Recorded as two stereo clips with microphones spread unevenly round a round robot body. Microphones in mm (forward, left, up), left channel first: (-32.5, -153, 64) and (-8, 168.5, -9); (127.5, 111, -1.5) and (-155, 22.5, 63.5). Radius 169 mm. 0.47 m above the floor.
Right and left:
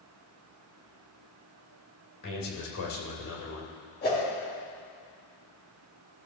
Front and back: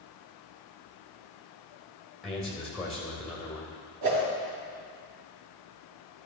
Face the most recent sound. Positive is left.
turn(degrees=-160)